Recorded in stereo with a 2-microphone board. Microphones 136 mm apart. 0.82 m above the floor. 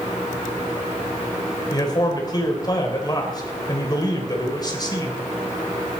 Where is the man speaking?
30° left (ahead or behind), 3 m.